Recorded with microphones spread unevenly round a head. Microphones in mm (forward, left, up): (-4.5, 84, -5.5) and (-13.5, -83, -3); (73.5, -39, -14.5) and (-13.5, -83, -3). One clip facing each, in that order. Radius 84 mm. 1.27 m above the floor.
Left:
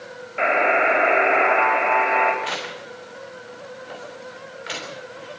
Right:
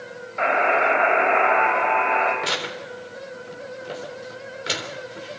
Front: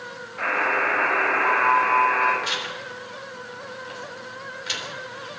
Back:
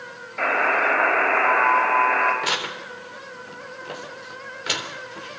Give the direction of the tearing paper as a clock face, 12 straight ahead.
4 o'clock.